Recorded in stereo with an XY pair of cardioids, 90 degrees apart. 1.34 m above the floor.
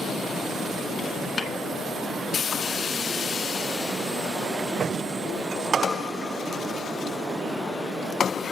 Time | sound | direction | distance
1.4 | a snare drum | 40° left | 1.2 m